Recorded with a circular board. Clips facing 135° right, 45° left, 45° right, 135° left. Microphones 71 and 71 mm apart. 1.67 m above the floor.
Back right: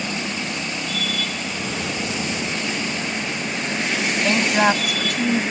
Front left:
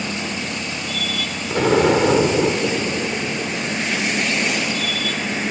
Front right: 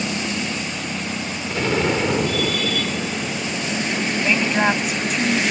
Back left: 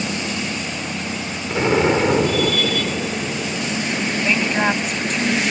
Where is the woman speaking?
130° right.